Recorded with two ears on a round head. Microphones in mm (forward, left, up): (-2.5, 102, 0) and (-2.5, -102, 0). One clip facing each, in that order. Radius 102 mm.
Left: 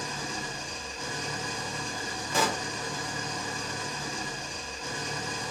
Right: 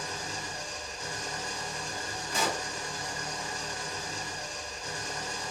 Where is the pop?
50° left (ahead or behind), 0.7 m.